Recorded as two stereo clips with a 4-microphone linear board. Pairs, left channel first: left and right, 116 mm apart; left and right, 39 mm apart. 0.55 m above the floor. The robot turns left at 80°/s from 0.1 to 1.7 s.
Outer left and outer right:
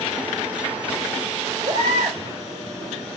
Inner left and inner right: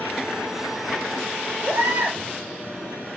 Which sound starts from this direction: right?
A baby crying, at 1.6 s.